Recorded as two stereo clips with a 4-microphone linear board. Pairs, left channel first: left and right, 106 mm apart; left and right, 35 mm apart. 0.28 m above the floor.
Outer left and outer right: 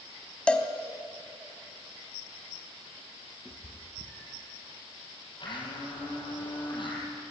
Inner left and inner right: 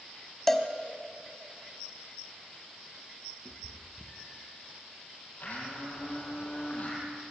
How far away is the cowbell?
About 1.6 m.